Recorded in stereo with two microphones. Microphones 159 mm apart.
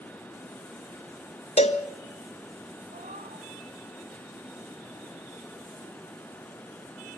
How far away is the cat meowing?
About 5 m.